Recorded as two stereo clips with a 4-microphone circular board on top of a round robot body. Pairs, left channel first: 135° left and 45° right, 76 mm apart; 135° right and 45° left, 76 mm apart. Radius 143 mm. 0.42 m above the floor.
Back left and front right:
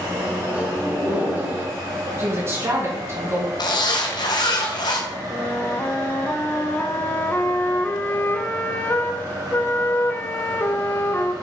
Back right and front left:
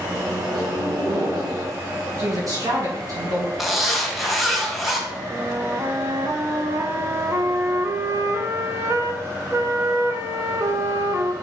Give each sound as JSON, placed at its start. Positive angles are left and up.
{"t": 0.1, "sound": "a microwave", "azimuth_deg": 20, "distance_m": 4.0}
{"t": 2.2, "sound": "a woman speaking", "azimuth_deg": 10, "distance_m": 5.5}
{"t": 3.6, "sound": "a zipper", "azimuth_deg": 135, "distance_m": 2.5}
{"t": 5.3, "sound": "a flute", "azimuth_deg": 80, "distance_m": 1.4}